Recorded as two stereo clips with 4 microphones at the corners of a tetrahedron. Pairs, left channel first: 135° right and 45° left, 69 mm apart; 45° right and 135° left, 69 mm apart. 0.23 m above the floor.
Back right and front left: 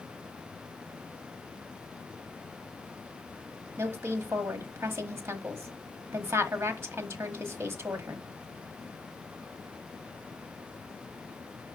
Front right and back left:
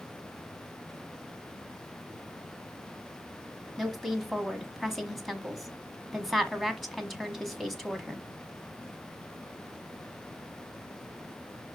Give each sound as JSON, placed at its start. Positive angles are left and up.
{"t": 3.8, "sound": "a woman speaking", "azimuth_deg": 45, "distance_m": 1.2}